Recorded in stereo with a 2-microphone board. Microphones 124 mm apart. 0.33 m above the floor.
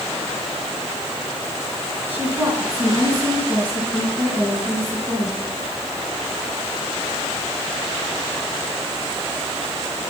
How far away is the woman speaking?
About 3 m.